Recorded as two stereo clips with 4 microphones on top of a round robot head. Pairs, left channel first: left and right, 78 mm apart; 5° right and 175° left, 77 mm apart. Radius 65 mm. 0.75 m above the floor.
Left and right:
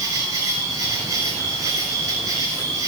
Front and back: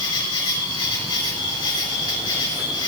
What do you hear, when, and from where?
0.0 s an insect: 35° right, 6 m